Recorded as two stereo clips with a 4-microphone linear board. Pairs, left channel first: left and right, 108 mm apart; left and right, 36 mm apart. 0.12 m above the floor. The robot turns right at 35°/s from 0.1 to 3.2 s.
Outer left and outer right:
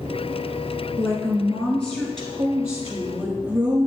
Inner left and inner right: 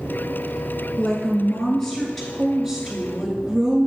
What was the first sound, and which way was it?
A woman speaking, 130° left.